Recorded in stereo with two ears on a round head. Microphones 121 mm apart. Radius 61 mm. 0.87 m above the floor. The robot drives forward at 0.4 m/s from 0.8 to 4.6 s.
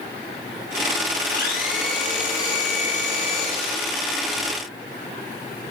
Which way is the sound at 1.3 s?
75° left (ahead or behind).